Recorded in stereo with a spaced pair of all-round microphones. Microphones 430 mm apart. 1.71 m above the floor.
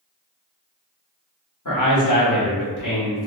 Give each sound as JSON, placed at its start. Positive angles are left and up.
{"t": 1.6, "sound": "a man speaking", "side_deg": 45, "distance_m": 1.2}